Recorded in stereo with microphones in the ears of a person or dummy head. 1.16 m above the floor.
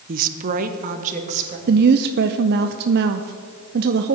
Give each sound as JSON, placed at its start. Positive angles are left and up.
{"t": 0.1, "sound": "a woman speaking", "side_deg": -40, "distance_m": 0.7}
{"t": 1.7, "sound": "a woman speaking", "side_deg": -55, "distance_m": 0.6}